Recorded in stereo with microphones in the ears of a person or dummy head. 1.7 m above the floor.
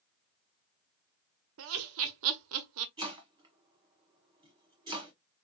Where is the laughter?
70° right (ahead or behind), 0.6 m.